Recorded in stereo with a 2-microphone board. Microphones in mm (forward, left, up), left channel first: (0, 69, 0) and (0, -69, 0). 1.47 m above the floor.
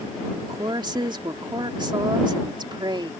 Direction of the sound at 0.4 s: 35° right (ahead or behind).